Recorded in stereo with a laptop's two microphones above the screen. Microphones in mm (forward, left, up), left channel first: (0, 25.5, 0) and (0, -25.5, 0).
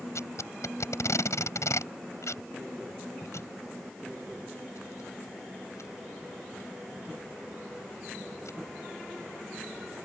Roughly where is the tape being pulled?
Left.